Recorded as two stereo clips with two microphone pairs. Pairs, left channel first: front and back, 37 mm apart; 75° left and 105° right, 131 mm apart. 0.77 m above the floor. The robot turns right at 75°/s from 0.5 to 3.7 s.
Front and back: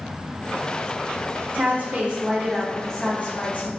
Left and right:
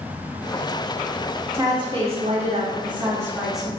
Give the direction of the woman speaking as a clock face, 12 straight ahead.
6 o'clock.